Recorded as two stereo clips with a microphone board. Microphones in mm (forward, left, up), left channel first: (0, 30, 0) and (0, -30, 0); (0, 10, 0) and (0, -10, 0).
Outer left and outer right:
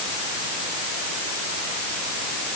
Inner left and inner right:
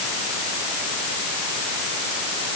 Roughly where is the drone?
No drone in this recording.